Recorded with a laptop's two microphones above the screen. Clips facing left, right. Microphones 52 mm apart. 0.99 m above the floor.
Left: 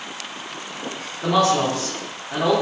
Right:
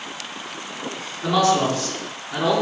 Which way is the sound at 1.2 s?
50° left (ahead or behind).